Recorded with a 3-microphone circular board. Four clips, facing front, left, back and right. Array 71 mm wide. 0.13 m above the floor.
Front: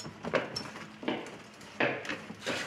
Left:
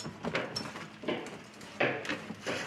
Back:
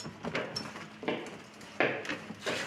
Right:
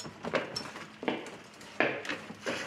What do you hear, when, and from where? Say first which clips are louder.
0.3 s footsteps: right 6 dB, front 7 dB; 45° right, 1.1 m; by 2.6 s 125° right, 3.5 m